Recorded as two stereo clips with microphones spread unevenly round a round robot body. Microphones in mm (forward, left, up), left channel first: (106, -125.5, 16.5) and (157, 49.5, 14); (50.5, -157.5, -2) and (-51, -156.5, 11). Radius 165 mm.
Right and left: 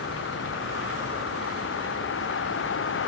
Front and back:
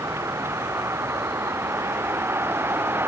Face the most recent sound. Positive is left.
turn(degrees=-115)